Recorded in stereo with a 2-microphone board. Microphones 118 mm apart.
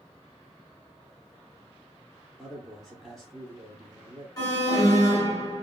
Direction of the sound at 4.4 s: 30° left (ahead or behind).